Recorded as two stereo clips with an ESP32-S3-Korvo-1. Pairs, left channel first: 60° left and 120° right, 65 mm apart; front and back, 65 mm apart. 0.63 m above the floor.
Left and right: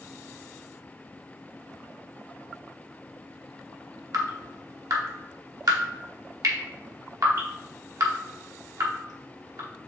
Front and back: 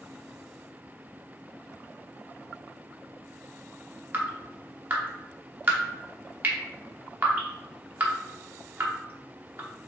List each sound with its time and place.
4.1 s dripping: 125° right, 0.9 m